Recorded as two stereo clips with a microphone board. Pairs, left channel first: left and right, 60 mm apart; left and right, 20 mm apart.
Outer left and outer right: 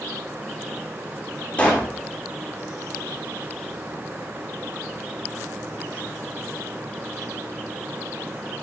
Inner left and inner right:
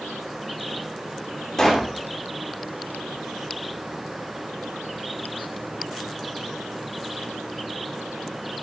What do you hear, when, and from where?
1.6 s a pop: 20° left (ahead or behind), 6.5 m